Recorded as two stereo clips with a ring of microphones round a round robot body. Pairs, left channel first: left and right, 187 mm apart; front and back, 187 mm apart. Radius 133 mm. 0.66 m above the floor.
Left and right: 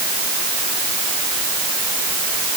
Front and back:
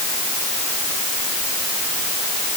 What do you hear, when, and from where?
Only background noise.